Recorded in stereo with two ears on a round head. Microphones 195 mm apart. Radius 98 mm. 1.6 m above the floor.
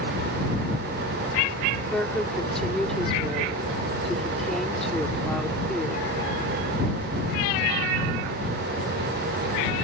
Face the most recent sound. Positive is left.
turn(degrees=0)  # may be behind; listen again after turning